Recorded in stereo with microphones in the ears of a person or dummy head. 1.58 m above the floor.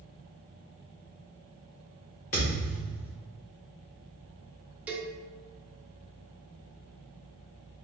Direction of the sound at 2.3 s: 30° left (ahead or behind).